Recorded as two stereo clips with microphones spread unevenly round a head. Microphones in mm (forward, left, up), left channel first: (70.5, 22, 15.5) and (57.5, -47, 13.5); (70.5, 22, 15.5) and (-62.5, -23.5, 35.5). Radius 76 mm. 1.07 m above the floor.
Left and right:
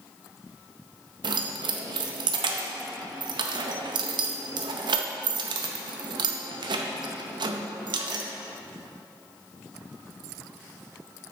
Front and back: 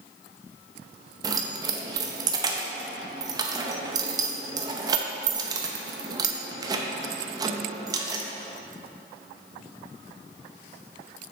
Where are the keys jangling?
95° right, 0.6 m.